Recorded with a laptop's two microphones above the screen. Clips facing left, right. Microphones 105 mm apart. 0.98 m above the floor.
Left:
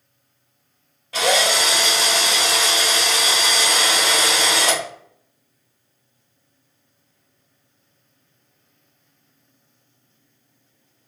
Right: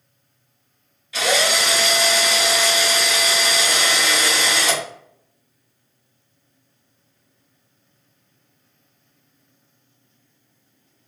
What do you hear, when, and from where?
1.1 s a drill: 50° left (ahead or behind), 2.0 m